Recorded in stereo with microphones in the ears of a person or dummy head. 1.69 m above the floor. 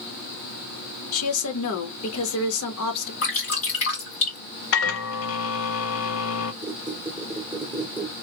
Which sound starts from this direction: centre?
A squeak, at 6.6 s.